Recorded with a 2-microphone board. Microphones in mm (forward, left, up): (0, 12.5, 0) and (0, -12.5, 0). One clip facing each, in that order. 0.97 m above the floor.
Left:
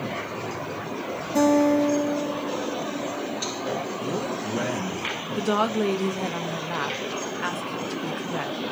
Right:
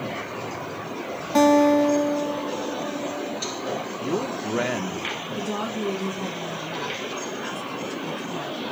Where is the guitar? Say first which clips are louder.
Right 3 dB; 65° right (ahead or behind), 0.9 m.